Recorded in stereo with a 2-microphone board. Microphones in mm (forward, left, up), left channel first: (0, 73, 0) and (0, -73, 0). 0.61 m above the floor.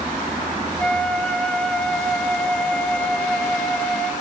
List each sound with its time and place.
0.8 s a flute: 5° left (ahead or behind), 0.8 m